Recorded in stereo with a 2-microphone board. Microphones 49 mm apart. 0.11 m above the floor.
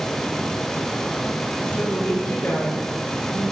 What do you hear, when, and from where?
1.6 s a woman speaking: 40° left (ahead or behind), 7.5 m